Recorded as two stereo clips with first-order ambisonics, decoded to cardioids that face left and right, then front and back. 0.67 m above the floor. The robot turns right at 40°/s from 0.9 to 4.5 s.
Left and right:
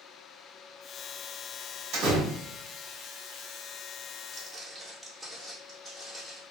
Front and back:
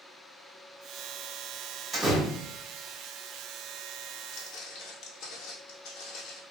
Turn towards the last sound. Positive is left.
turn(degrees=20)